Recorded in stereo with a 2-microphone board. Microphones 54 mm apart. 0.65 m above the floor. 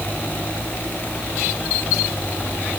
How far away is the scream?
No scream in this recording.